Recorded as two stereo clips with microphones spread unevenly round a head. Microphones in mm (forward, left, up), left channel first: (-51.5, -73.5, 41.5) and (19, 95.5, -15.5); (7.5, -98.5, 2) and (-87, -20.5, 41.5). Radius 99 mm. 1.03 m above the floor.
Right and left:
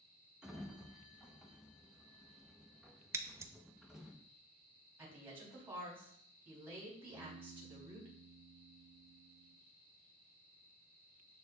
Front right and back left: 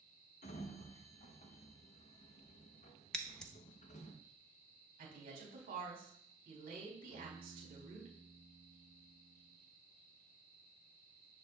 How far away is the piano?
About 6.5 m.